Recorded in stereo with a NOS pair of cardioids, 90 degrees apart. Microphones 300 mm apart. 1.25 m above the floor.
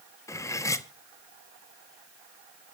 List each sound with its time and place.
0.3 s cutlery clinking: 10° left, 1.2 m